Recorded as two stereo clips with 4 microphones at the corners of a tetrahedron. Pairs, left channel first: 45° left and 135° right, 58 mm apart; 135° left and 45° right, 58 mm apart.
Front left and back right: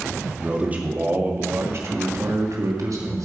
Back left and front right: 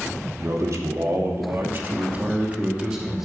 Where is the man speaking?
65° right, 2.5 m; by 3.2 s 130° right, 2.5 m.